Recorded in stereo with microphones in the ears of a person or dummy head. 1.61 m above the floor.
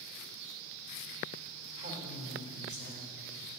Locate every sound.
1.8 s a woman speaking: 30° right (ahead or behind), 2.5 m; by 3.2 s 50° right (ahead or behind), 4 m